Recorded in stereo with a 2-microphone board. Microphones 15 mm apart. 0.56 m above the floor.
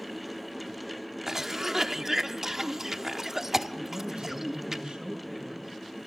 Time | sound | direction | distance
1.3 | a cough | 30° right (ahead or behind) | 0.8 m
3.9 | a man speaking | 80° right | 7 m